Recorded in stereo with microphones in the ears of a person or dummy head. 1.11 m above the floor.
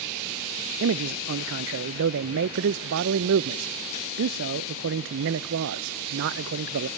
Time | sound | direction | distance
0.8 | a man speaking | 70° right (ahead or behind) | 0.5 m